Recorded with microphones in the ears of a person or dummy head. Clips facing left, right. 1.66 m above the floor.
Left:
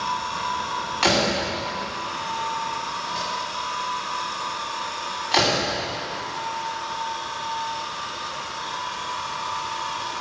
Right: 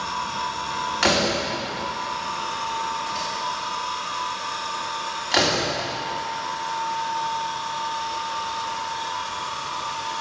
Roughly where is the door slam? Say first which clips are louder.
Even; right.